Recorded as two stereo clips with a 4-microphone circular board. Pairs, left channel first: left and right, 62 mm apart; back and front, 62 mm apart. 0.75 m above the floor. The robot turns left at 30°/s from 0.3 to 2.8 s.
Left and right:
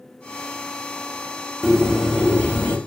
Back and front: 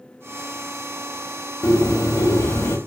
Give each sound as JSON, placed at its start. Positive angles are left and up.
{"t": 1.6, "sound": "a bird", "azimuth_deg": -175, "distance_m": 0.5}